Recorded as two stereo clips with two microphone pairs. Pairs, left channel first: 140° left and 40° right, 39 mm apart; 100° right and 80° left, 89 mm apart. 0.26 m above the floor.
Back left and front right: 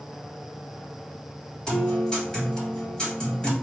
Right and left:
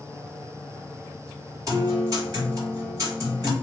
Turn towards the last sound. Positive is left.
turn(degrees=80)